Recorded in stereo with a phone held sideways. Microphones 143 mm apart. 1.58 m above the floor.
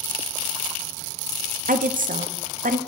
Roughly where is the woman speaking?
Right.